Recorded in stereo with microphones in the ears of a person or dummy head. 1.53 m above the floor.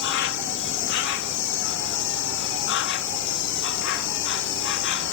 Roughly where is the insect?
Left.